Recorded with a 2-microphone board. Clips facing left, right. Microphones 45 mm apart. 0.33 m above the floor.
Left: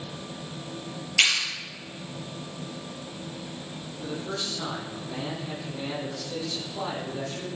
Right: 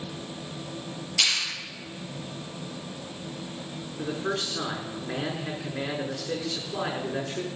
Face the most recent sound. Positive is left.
turn(degrees=-75)  # may be behind; listen again after turning